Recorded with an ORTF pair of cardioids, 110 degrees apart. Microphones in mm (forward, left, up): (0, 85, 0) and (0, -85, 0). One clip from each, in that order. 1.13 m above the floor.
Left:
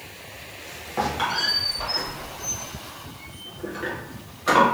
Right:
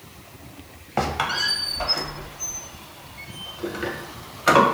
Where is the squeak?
35° right, 0.6 m.